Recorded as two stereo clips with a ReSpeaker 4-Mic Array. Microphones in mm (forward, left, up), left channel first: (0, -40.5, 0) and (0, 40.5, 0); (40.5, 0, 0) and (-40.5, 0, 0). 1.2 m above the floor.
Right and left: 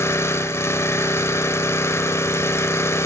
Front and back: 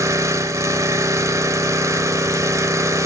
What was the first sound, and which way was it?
An engine running, 140° right.